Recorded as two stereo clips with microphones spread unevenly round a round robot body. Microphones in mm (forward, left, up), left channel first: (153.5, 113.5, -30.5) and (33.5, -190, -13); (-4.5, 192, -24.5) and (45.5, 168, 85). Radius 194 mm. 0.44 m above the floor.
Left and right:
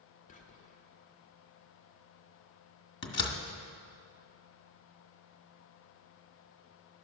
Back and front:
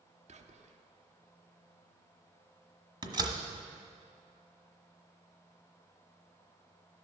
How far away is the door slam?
About 1.4 m.